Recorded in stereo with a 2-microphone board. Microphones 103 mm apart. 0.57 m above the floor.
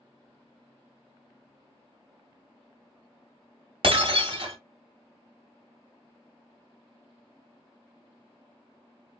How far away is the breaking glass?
About 1.2 m.